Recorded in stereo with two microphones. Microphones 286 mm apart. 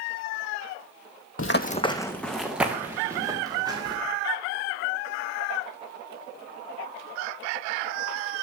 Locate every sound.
1.4 s running footsteps: 55° left (ahead or behind), 0.5 m; by 4.0 s 15° right (ahead or behind), 2.5 m